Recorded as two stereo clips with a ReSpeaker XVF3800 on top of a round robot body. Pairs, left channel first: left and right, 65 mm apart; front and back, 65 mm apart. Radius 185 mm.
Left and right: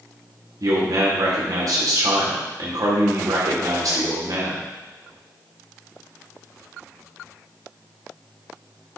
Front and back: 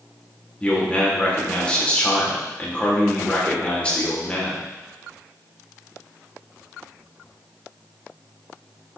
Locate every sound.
0.6 s a man speaking: 70° right, 2.5 m